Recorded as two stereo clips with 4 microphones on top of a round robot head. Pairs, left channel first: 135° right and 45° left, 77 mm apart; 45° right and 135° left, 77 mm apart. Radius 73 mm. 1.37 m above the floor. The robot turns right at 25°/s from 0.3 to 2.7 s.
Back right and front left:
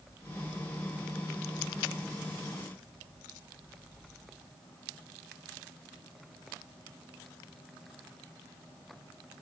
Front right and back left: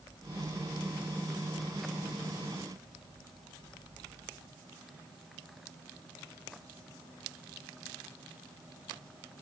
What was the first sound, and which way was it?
Only background noise.